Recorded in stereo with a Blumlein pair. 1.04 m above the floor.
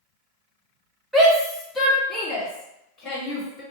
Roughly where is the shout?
Ahead.